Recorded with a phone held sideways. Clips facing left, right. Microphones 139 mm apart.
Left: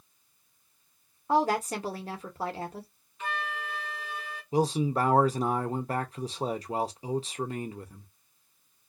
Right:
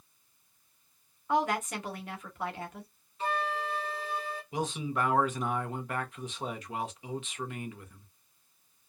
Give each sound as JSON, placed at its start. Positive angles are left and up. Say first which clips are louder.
{"t": 1.3, "sound": "a woman speaking", "louder": "left 3 dB", "side_deg": 35, "distance_m": 0.9}
{"t": 3.2, "sound": "a flute", "louder": "right 4 dB", "side_deg": -35, "distance_m": 0.7}
{"t": 4.5, "sound": "a man speaking", "louder": "left 7 dB", "side_deg": 35, "distance_m": 0.6}